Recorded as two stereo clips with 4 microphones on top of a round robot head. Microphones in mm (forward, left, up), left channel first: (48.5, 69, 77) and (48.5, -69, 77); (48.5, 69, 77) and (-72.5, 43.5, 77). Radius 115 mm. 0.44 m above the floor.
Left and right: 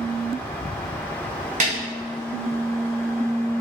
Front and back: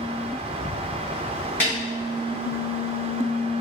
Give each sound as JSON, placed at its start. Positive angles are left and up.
{"t": 1.6, "sound": "a snare drum", "azimuth_deg": -65, "distance_m": 2.0}